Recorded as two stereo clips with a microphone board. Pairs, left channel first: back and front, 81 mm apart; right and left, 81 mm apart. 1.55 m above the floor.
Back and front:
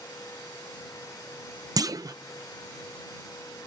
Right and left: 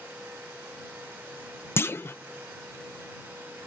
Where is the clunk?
35° right.